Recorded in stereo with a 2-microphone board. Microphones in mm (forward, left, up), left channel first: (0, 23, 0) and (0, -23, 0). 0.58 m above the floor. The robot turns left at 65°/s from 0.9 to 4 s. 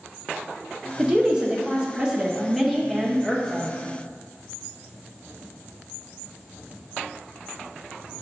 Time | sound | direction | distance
1.0 | a woman speaking | 15° right (ahead or behind) | 0.6 m